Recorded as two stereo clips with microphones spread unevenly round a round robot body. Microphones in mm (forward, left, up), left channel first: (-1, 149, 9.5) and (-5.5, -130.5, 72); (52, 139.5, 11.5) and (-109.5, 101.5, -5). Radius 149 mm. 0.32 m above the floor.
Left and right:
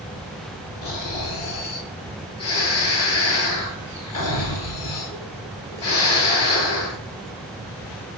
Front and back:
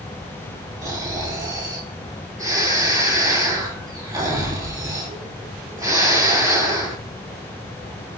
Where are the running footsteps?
No running footsteps in this recording.